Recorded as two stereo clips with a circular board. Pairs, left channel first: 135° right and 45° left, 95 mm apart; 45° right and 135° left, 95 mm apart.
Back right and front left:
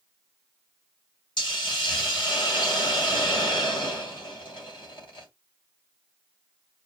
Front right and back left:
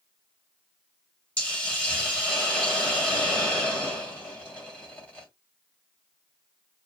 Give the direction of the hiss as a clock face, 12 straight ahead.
4 o'clock.